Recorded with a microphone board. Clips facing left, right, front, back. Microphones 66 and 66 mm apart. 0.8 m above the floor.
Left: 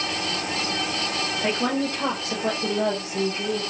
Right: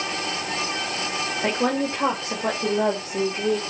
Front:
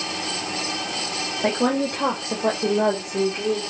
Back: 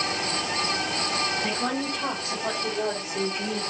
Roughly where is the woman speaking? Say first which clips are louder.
Right 2 dB, front 6 dB; ahead.